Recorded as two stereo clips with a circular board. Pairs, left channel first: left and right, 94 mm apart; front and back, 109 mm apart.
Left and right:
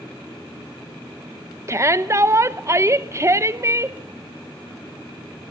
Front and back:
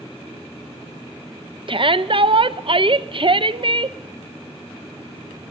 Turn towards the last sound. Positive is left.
turn(degrees=-145)